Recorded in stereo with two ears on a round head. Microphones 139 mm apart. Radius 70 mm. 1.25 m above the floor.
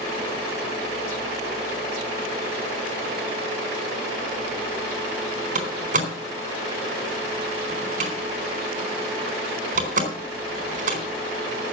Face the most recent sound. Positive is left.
turn(degrees=-50)  # may be behind; listen again after turning